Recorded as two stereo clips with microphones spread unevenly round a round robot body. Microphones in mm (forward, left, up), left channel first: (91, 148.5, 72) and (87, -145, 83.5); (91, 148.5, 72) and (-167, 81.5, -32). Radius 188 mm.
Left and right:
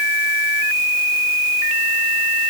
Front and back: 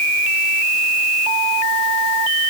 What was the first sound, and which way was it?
Only background noise.